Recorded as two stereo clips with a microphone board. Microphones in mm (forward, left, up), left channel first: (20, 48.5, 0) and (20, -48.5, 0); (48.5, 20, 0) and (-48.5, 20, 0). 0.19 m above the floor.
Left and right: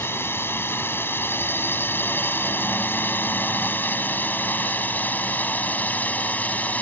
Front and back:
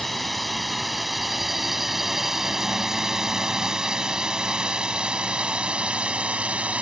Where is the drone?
85° left; by 6.8 s 130° left.